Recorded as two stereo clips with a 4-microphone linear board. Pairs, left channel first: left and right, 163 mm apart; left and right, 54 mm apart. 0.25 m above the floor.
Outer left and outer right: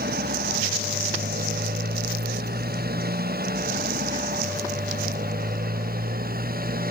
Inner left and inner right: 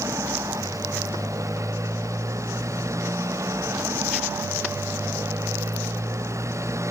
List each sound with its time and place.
0.0 s a motorcycle: 75° right (ahead or behind); by 6.9 s 65° right (ahead or behind)